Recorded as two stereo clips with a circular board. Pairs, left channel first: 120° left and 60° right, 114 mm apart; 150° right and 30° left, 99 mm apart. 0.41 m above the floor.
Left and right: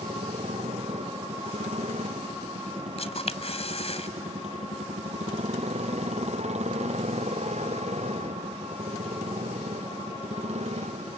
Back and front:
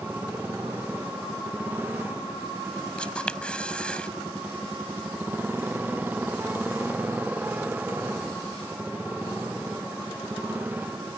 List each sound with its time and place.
0.0 s a motorcycle: 40° right
3.0 s a camera shutter: 130° left